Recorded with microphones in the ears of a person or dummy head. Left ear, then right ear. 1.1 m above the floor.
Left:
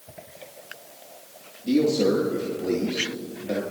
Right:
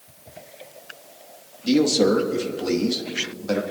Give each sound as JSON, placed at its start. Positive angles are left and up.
{"t": 1.6, "sound": "a man speaking", "side_deg": -55, "distance_m": 1.5}